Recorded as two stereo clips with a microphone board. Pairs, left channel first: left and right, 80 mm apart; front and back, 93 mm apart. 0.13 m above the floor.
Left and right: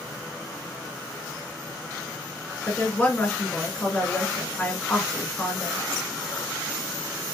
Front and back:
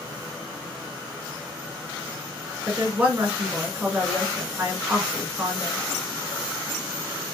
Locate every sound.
2.7 s a woman speaking: 135° left, 1.8 m